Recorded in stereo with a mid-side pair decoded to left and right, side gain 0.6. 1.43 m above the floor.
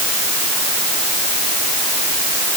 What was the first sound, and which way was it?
Only background noise.